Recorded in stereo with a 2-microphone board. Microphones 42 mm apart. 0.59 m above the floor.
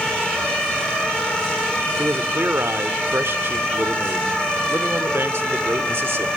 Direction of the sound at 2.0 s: 65° right (ahead or behind).